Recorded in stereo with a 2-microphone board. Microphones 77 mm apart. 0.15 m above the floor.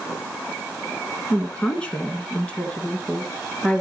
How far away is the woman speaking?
About 1.1 m.